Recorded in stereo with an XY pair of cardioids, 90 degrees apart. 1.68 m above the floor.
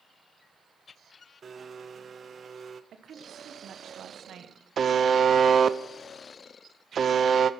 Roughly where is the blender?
Ahead right.